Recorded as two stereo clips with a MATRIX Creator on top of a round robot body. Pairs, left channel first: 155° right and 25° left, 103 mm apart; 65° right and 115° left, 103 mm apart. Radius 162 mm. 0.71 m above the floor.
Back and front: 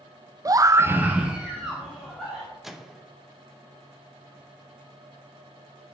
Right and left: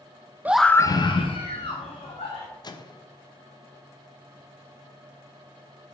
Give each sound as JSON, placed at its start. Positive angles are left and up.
{"t": 0.5, "sound": "a scream", "azimuth_deg": 50, "distance_m": 0.6}
{"t": 2.6, "sound": "a microwave", "azimuth_deg": -65, "distance_m": 1.0}